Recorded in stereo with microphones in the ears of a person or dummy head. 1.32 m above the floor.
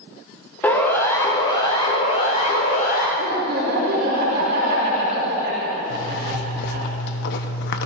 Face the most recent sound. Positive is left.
turn(degrees=60)  # may be behind; listen again after turning